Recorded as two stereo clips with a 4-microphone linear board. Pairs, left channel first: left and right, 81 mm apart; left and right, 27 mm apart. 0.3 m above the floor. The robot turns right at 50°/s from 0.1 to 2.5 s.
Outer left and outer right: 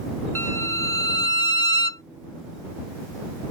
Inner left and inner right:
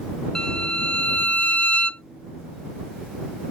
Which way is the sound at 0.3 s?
30° left.